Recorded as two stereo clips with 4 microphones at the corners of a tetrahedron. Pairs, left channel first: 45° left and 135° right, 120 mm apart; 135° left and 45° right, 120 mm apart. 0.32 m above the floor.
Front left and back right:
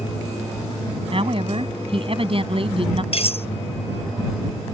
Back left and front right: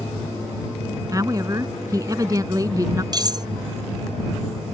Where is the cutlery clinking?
10° left.